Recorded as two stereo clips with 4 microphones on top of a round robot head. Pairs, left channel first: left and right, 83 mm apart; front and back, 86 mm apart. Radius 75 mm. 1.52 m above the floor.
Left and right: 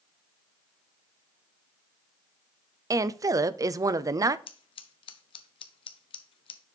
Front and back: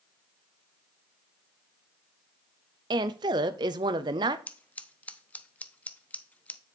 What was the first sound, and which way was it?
A woman speaking, 140° right.